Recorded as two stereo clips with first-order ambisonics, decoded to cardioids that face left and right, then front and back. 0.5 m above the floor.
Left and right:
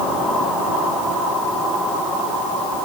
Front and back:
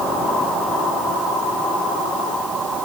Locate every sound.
Only background noise.